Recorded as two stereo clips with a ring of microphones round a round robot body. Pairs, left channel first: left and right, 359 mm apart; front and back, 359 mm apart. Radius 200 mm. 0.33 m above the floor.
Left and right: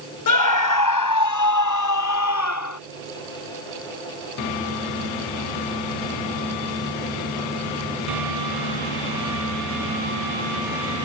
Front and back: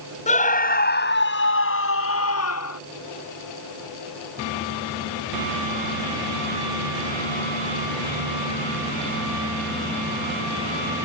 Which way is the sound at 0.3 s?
70° left.